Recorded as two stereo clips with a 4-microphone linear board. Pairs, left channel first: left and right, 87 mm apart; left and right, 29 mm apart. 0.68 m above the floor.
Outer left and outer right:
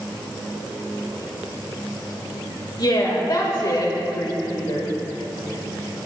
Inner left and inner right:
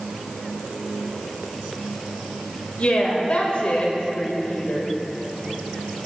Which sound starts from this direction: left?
A woman speaking, at 2.8 s.